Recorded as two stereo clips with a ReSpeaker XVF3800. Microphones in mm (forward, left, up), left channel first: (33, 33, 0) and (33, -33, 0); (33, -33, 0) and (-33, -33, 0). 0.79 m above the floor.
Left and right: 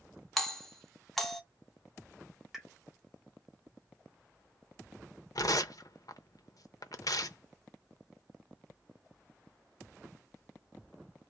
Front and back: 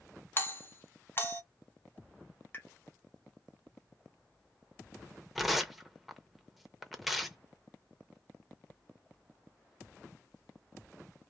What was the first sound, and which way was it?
A doorbell, 10° left.